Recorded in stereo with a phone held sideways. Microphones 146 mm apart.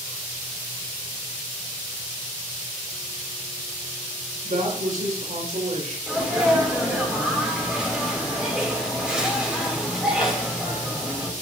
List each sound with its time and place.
4.4 s a woman speaking: 75° right (ahead or behind), 5 m
6.1 s a sneeze: 5° right (ahead or behind), 3 m